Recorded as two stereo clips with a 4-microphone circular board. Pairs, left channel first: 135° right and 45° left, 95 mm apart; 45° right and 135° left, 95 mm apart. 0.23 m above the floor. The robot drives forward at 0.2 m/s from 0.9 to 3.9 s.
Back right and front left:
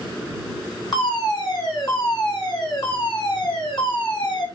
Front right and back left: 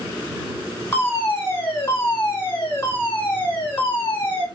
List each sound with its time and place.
0.9 s a fire alarm: 100° right, 4 m; by 4.5 s 110° right, 4 m